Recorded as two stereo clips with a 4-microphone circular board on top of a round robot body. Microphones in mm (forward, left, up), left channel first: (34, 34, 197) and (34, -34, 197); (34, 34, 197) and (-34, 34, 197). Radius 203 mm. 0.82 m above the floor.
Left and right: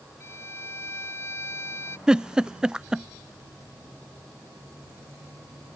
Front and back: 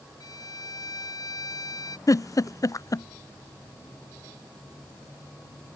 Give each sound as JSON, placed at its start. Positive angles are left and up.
{"t": 0.2, "sound": "a violin", "azimuth_deg": 35}
{"t": 2.1, "sound": "a giggle", "azimuth_deg": -15}